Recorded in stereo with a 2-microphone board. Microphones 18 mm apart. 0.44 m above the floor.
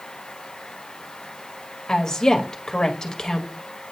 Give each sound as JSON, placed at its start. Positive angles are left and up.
{"t": 1.9, "sound": "a woman speaking", "side_deg": 40, "distance_m": 1.5}